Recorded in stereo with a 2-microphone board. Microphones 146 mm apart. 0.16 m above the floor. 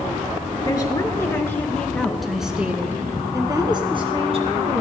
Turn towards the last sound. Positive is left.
turn(degrees=-50)  # may be behind; listen again after turning